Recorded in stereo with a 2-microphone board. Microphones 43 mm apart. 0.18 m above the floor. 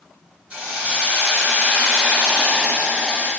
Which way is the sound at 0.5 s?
25° right (ahead or behind).